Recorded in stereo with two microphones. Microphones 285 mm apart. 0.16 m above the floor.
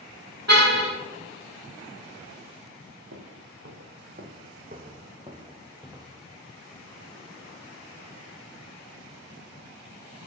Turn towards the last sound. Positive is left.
turn(degrees=-10)  # may be behind; listen again after turning